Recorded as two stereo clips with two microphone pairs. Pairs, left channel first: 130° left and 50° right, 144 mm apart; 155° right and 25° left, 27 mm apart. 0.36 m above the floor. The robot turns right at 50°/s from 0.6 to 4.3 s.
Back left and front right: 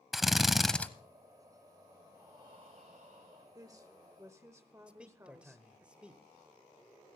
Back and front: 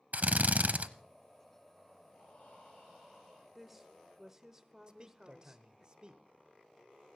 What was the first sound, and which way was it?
A drill, 40° left.